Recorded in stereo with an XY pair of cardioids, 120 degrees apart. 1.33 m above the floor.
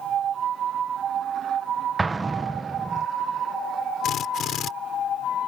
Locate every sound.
2.0 s an explosion: 20° right
4.0 s a drill: 55° left